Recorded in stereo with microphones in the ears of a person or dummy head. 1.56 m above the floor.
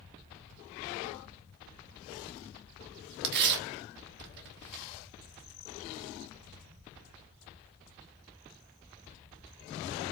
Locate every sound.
3.2 s tearing paper: 60° right (ahead or behind), 1.2 m